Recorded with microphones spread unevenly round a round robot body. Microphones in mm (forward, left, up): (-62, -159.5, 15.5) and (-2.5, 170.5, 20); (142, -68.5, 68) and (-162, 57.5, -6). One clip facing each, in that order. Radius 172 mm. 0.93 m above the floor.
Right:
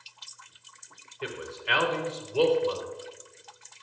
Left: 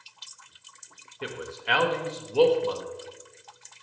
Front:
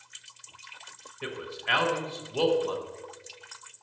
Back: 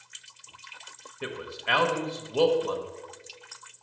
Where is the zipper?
I don't hear a zipper.